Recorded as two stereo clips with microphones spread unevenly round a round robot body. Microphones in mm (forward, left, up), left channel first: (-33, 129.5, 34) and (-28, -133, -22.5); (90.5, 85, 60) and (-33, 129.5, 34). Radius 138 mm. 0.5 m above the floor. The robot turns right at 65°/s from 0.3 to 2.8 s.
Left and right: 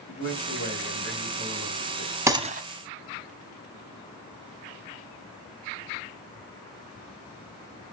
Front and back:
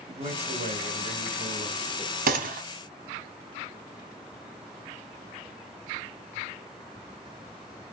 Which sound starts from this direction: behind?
A gunshot, at 2.3 s.